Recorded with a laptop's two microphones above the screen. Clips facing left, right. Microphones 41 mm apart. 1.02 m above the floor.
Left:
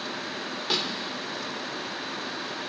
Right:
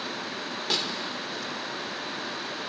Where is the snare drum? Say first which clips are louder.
Left 1 dB; centre (ahead or behind), 3 m.